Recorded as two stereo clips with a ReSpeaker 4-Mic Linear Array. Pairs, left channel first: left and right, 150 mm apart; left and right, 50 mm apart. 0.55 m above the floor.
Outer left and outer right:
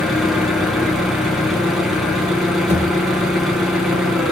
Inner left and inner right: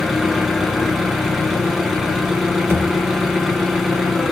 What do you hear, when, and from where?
0.0 s an engine running: centre (ahead or behind), 2.5 m
2.7 s a thud: 50° right (ahead or behind), 3.5 m